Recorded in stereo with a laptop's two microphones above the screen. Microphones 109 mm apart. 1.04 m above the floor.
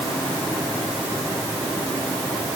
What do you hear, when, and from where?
Only background noise.